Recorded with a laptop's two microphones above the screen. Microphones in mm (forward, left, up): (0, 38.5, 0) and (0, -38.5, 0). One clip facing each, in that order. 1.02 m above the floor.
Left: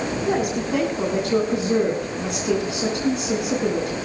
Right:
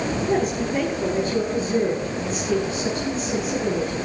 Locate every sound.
0.3 s a woman speaking: 75° left (ahead or behind), 10 m